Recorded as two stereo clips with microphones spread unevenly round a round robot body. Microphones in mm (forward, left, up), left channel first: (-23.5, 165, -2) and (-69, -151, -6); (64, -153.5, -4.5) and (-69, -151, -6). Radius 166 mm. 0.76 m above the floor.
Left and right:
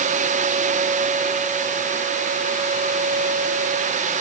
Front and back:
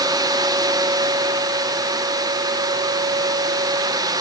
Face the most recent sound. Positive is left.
No sound to turn to.